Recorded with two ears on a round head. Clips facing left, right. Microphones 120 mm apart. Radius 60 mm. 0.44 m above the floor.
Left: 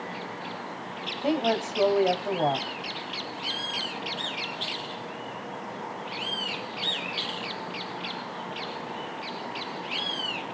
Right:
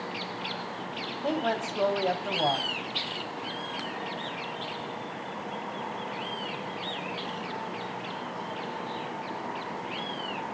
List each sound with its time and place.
1.2 s a woman speaking: 15° left (ahead or behind), 3 m